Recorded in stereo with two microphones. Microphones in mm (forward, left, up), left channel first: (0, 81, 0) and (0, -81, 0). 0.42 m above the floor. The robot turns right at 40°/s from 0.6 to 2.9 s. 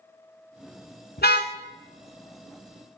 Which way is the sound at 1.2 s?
85° left.